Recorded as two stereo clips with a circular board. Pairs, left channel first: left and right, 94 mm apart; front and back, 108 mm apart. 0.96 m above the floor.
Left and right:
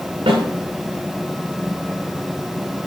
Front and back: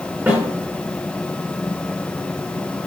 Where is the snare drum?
110° right, 7.5 m.